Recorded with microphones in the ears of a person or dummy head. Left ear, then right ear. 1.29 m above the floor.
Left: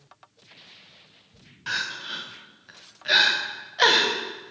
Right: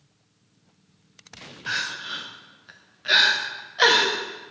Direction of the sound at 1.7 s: 5° left (ahead or behind).